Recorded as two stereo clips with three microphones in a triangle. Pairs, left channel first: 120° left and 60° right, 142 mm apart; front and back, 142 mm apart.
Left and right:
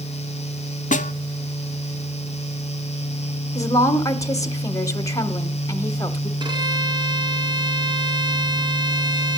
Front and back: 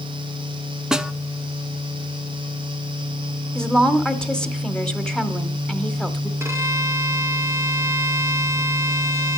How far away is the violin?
About 1.8 m.